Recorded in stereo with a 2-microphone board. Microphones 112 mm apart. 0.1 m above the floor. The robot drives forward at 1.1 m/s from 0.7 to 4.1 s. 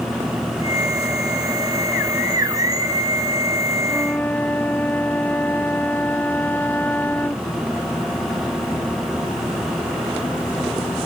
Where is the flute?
15° left (ahead or behind).